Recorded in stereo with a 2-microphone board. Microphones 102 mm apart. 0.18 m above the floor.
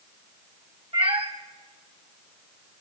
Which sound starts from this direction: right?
A cat meowing, at 0.9 s.